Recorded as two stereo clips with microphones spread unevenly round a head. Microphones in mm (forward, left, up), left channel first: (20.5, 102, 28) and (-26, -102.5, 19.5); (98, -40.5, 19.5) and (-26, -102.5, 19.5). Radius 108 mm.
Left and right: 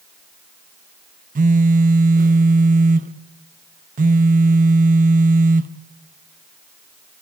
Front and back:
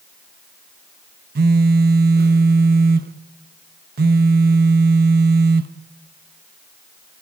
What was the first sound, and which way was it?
A phone buzzing, 160° right.